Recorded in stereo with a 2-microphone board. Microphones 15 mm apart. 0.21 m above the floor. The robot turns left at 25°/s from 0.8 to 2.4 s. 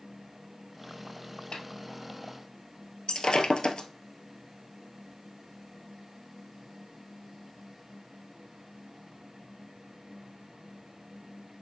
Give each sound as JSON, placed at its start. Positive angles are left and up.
{"t": 1.5, "sound": "a snare drum", "side_deg": 75, "distance_m": 1.9}
{"t": 3.1, "sound": "breaking glass", "side_deg": 65, "distance_m": 1.1}